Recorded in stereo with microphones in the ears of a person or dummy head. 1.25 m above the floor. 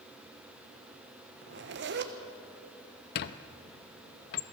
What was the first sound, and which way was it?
A zipper, 50° right (ahead or behind).